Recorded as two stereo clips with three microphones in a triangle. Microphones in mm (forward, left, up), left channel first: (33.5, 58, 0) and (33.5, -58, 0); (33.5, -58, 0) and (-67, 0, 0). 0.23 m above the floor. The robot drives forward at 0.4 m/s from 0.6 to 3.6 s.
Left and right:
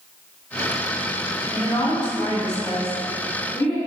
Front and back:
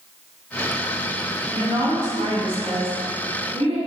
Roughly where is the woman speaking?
Behind left.